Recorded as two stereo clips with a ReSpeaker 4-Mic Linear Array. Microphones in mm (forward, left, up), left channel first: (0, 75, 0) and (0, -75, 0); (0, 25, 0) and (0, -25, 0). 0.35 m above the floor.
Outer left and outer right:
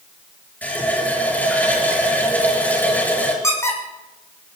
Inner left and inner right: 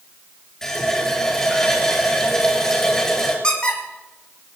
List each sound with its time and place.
0.6 s a running tap: 10° left (ahead or behind), 4.5 m
3.4 s a squeak: 20° left (ahead or behind), 3.5 m